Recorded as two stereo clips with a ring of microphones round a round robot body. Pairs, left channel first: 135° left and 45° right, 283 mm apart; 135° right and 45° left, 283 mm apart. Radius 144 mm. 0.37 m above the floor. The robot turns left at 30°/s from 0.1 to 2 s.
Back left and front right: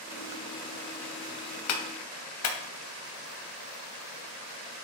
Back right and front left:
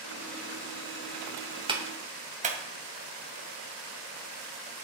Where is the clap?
115° left, 2.5 m; by 2.6 s 105° left, 2.5 m.